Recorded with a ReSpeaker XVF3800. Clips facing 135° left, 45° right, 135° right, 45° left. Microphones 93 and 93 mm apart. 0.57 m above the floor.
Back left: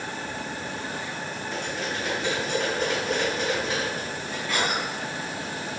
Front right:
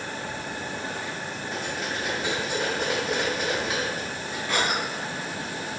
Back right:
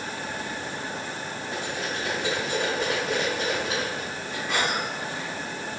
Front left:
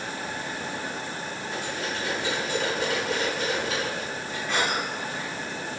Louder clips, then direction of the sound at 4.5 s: Front right 1 dB, even; 70° right.